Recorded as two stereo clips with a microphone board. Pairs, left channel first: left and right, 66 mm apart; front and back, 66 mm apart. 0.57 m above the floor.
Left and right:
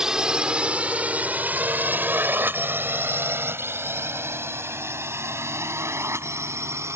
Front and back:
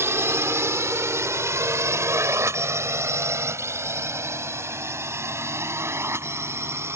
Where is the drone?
165° right; by 7.0 s 130° right.